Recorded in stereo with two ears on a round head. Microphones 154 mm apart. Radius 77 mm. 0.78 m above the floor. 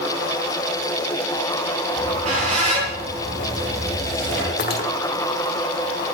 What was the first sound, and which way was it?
A squeak, 40° right (ahead or behind).